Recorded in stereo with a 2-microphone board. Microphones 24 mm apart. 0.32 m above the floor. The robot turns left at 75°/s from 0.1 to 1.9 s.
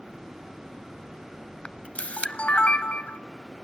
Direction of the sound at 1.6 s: 50° left (ahead or behind).